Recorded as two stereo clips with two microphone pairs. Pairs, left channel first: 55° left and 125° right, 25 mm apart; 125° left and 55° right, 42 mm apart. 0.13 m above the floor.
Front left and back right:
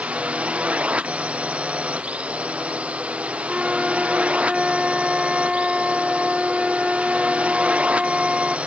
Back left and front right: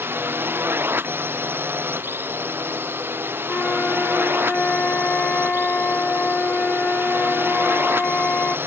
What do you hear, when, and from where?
0.0 s a drone: 90° right
3.5 s a flute: 175° right